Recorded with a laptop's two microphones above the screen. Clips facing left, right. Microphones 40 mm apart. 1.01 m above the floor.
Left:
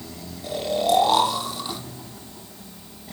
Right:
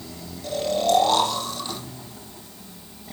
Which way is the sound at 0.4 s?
15° left (ahead or behind).